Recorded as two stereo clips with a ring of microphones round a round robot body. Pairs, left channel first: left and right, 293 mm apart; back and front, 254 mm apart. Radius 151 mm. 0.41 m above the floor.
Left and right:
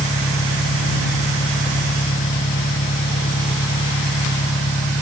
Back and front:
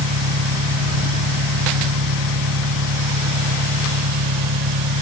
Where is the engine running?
20° left.